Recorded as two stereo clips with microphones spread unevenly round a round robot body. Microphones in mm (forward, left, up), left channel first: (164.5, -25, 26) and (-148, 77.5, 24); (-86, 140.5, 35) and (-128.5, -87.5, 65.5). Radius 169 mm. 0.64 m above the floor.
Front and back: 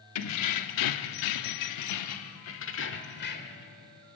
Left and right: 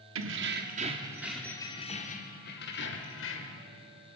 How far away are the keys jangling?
About 1.0 m.